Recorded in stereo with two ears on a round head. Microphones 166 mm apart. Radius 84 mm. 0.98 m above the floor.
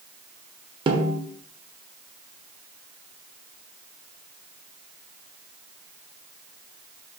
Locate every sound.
0.9 s a snare drum: 25° right (ahead or behind), 0.6 m